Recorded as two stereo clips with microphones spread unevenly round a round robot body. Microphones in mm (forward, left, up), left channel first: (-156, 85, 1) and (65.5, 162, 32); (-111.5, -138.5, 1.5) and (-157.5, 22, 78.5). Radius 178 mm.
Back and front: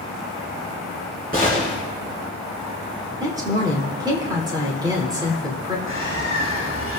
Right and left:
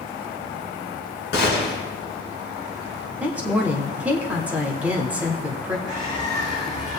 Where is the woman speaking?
50° right, 1.0 m.